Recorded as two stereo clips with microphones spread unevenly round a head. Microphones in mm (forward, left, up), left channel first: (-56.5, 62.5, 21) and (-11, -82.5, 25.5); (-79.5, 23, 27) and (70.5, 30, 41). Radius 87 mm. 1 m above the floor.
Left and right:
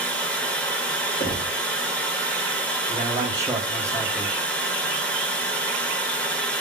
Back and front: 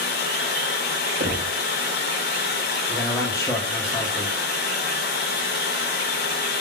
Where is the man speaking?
130° right, 0.7 m.